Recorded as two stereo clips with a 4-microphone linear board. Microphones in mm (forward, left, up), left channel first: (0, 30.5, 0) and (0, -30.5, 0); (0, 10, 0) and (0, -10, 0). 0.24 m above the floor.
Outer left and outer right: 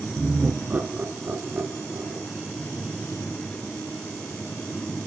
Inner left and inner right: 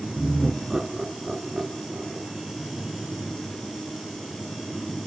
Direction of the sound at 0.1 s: 20° right (ahead or behind).